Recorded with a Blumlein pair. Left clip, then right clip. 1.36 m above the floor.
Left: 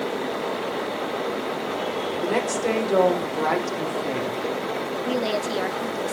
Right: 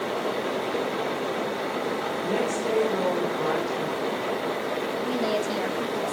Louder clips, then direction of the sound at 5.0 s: Left 2 dB; 10° left.